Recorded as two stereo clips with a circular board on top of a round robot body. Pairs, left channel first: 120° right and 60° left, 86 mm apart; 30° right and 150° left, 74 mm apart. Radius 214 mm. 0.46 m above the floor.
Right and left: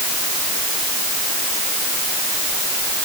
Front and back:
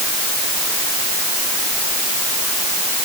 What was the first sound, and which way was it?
Only background noise.